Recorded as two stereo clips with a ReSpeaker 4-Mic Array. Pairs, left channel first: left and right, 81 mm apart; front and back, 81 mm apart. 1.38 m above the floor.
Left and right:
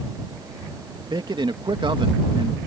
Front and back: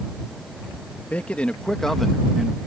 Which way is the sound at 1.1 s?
70° right.